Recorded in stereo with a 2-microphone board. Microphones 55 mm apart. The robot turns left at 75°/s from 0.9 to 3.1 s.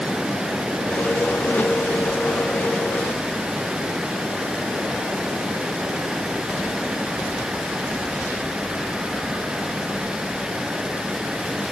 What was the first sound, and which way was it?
Only background noise.